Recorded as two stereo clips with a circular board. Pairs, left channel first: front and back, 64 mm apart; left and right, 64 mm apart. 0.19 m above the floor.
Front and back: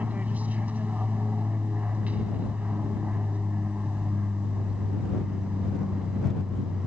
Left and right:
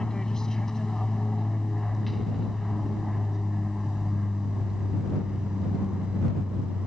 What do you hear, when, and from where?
0.0 s an aircraft: 160° left; by 6.9 s 135° right